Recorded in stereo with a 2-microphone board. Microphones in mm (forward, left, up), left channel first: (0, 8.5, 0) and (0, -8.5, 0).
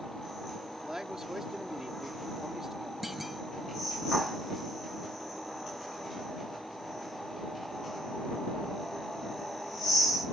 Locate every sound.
0.7 s a man speaking: 35° right (ahead or behind)
3.0 s a clunk: 10° right (ahead or behind)